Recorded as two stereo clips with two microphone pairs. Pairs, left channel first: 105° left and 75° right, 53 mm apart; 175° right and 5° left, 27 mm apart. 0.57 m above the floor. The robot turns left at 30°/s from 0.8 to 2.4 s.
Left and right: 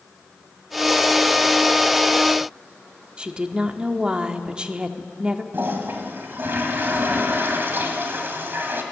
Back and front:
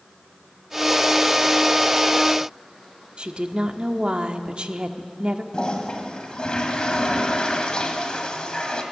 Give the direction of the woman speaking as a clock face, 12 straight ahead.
12 o'clock.